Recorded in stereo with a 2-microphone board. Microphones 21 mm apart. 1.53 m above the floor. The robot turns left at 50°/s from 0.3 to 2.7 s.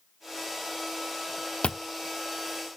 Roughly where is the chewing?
Left.